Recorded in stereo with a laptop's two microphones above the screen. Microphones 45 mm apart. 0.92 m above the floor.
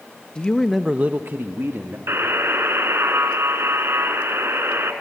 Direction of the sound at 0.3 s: 25° left (ahead or behind).